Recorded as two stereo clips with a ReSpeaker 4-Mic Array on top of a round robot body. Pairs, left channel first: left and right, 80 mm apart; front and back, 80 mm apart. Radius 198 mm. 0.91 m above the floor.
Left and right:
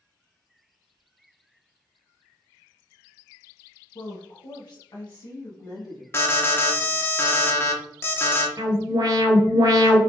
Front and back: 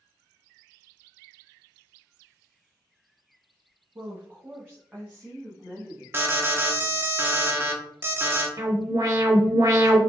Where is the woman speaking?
125° left, 0.9 m; by 6.0 s 95° left, 1.8 m.